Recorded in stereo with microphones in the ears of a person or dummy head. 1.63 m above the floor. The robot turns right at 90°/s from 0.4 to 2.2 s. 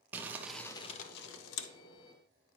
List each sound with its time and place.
0.1 s crumpling: 10° right, 0.7 m; by 1.7 s 105° left, 0.7 m